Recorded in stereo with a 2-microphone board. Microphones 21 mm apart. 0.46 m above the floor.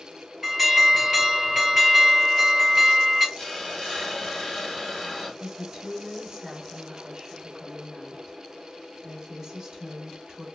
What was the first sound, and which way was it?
An alarm, 5° right (ahead or behind).